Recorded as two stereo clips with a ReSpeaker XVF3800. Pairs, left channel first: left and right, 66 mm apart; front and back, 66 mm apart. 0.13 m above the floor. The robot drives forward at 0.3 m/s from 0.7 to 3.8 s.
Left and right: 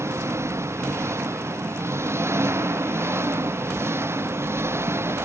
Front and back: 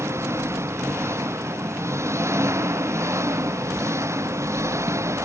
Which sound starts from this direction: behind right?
An engine running, at 0.0 s.